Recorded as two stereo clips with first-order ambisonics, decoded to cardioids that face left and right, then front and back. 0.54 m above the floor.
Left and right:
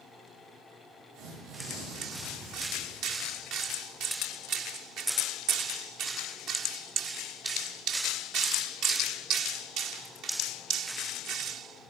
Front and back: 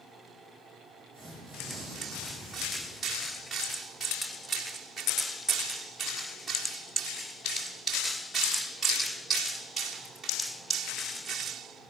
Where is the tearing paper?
110° right, 7.5 m.